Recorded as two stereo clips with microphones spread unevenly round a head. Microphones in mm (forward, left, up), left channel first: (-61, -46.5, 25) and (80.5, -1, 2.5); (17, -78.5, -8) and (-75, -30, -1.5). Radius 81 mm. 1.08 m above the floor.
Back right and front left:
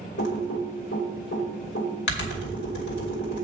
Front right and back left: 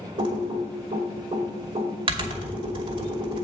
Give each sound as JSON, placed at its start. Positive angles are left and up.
{"t": 0.2, "sound": "typing on a keyboard", "azimuth_deg": 180, "distance_m": 2.5}